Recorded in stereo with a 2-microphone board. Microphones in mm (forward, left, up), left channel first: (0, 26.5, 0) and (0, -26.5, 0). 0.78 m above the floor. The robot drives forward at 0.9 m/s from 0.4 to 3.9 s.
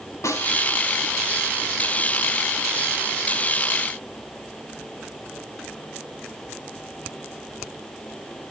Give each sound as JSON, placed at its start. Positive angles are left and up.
{"t": 0.2, "sound": "a snare drum", "side_deg": 70, "distance_m": 2.5}